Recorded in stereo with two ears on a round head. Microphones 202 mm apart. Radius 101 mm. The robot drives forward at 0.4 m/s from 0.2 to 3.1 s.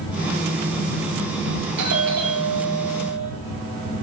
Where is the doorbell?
80° right, 4 m; by 3.3 s 75° right (ahead or behind), 4 m.